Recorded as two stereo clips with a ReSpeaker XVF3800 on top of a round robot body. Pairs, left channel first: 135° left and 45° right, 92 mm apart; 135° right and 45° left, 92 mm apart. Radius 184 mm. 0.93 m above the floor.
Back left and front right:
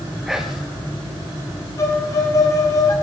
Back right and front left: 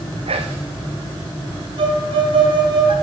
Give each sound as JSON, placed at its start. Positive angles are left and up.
{"t": 0.3, "sound": "whispering", "azimuth_deg": 45, "distance_m": 1.3}
{"t": 1.8, "sound": "a violin", "azimuth_deg": 80, "distance_m": 1.6}